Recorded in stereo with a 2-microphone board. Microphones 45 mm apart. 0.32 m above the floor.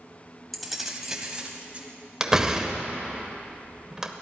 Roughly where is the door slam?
Centre.